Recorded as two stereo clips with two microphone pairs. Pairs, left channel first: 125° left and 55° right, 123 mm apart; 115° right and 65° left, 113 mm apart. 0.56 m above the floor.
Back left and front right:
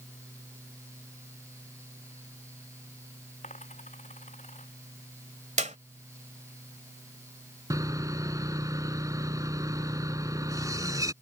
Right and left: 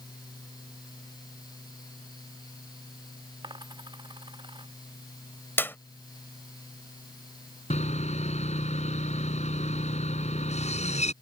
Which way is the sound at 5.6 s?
45° right.